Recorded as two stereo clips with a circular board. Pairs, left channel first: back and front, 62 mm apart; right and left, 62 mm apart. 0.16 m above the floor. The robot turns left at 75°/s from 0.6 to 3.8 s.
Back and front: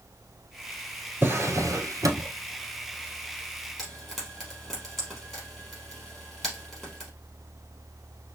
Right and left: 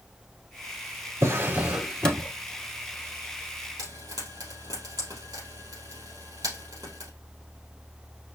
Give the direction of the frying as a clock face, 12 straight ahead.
9 o'clock.